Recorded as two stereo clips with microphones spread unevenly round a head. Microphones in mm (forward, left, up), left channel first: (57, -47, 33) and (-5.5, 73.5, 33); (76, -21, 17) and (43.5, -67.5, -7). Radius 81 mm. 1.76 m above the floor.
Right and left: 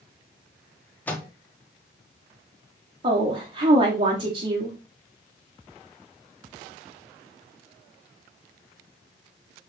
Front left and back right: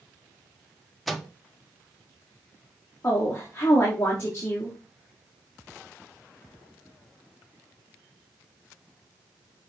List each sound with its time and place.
1.1 s a microwave: 10° left, 0.7 m
3.0 s a woman speaking: 80° left, 1.1 m